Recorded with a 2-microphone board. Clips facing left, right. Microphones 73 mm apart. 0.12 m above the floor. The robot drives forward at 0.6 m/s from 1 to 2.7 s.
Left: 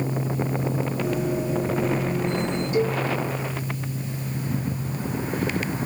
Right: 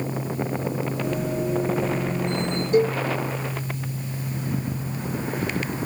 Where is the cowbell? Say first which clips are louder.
Right 4 dB; 45° right (ahead or behind), 1.1 m.